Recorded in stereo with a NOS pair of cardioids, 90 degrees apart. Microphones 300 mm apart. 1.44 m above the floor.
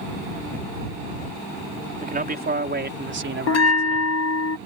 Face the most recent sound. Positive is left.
turn(degrees=60)